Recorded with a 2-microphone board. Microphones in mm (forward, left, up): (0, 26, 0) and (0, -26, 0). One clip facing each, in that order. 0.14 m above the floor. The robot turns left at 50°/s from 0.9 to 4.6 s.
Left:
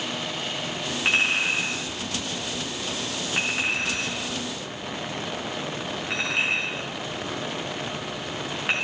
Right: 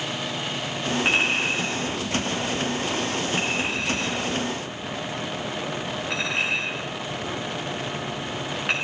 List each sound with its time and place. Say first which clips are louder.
1.1 s a clink: left 1 dB; centre (ahead or behind), 6.5 m; by 8.8 s 5° left (ahead or behind), 6.5 m